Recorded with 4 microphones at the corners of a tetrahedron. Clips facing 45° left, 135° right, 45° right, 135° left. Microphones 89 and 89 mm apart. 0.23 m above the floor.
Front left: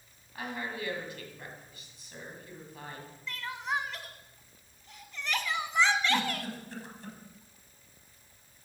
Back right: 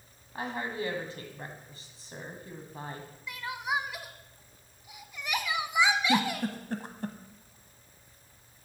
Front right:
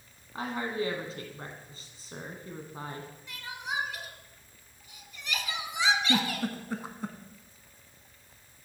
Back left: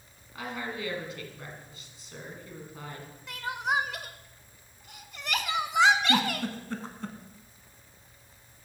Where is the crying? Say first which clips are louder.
Back right 1 dB, back left 8 dB; 145° left, 0.5 m.